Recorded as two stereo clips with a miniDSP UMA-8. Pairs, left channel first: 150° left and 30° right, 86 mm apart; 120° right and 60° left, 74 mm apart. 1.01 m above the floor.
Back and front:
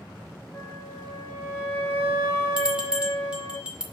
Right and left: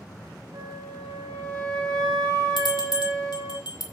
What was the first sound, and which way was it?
A flute, 85° left.